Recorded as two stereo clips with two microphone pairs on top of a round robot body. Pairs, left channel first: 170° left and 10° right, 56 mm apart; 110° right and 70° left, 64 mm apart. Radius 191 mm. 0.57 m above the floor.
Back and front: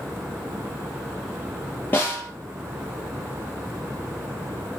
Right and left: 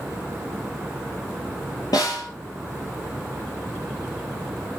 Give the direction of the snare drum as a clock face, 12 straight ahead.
4 o'clock.